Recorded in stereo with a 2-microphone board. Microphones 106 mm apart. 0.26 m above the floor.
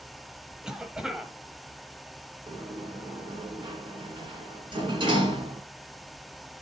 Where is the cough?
5° right (ahead or behind), 1.1 m.